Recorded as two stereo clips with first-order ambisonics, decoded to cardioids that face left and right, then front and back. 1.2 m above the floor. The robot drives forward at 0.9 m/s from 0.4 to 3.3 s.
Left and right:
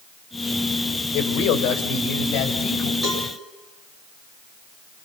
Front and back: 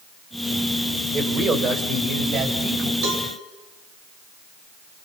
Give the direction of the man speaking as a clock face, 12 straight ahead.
8 o'clock.